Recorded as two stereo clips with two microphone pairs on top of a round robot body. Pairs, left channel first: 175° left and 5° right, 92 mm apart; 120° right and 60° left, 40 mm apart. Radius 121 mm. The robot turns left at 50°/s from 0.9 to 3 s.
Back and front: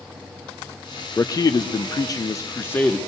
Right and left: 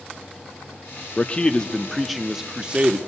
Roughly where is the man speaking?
Behind right.